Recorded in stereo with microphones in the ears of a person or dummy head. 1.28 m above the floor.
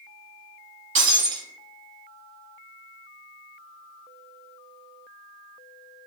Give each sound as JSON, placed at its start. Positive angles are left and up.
{"t": 0.9, "sound": "breaking glass", "side_deg": -40, "distance_m": 1.0}